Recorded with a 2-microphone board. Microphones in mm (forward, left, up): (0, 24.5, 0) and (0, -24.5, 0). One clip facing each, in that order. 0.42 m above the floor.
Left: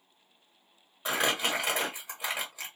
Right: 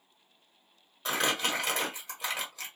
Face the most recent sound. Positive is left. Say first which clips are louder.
# left 1 dB
turn(degrees=10)  # may be behind; listen again after turning